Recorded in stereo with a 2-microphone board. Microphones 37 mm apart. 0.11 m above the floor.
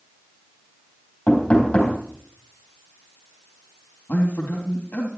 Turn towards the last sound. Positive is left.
turn(degrees=55)  # may be behind; listen again after turning